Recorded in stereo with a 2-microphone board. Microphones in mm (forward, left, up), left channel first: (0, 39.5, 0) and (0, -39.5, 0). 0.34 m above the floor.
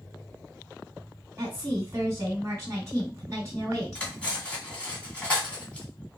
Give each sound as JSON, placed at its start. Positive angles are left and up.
{"t": 1.4, "sound": "a woman speaking", "side_deg": -35, "distance_m": 2.5}
{"t": 4.0, "sound": "cutlery clinking", "side_deg": 15, "distance_m": 1.6}